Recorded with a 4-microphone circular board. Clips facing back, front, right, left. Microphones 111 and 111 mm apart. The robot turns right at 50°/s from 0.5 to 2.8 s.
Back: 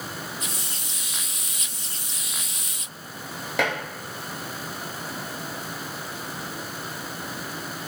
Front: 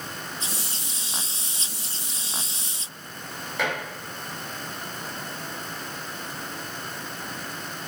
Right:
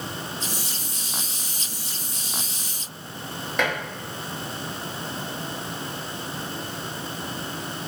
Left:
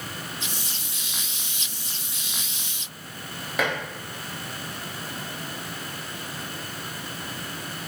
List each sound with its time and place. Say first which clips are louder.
3.6 s dishes clattering: back 3 dB, right 1 dB; 175° left, 3 m